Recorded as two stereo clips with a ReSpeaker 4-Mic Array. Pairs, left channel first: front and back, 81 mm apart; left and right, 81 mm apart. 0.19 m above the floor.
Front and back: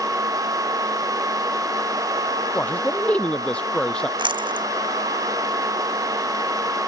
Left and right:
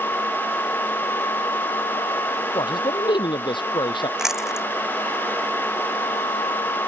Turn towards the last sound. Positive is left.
turn(degrees=-175)